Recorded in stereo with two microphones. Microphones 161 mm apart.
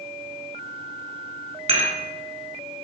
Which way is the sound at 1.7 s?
40° right (ahead or behind).